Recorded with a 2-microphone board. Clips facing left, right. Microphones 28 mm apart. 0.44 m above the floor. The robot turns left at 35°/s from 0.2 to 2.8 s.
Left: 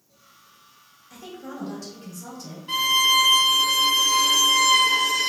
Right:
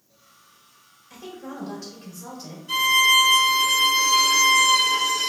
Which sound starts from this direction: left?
A violin, at 2.7 s.